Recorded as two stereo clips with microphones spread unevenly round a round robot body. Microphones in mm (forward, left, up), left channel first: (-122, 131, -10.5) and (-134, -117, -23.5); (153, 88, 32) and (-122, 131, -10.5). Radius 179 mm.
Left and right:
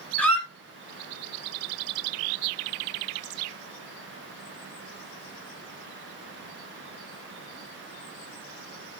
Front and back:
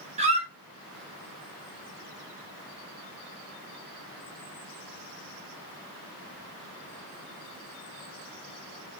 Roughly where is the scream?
No scream in this recording.